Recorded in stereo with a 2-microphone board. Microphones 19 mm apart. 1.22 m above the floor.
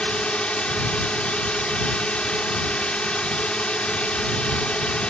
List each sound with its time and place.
0.0 s a drone: 70° left (ahead or behind)